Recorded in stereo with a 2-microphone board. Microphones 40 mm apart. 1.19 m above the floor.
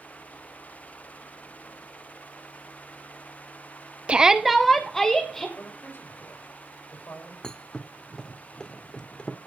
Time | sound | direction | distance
4.1 | a shout | 30° right (ahead or behind) | 0.5 m
5.6 | a man speaking | 65° left (ahead or behind) | 5.5 m
7.4 | a thud | 20° left (ahead or behind) | 0.9 m